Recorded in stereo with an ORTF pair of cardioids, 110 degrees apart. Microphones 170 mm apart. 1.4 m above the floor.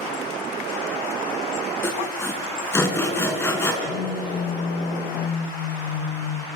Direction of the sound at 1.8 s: 15° left.